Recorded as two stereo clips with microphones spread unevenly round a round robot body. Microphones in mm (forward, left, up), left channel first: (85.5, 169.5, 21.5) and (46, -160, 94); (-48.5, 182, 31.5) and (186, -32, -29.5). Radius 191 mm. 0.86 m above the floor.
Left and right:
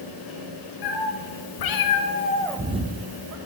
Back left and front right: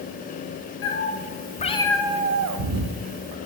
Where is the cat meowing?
85° left, 1.7 m; by 3.4 s 45° right, 1.3 m.